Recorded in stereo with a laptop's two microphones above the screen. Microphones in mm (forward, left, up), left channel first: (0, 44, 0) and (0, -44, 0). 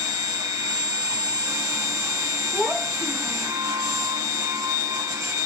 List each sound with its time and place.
0.0 s a machine running: 40° right (ahead or behind), 1.3 m
2.5 s a child speaking: 5° left (ahead or behind), 0.7 m